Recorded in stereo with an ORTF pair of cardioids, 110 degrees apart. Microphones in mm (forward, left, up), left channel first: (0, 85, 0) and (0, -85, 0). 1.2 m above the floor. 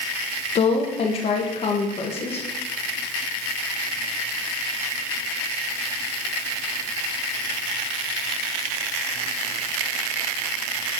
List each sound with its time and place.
0.6 s a woman speaking: 40° left, 1.3 m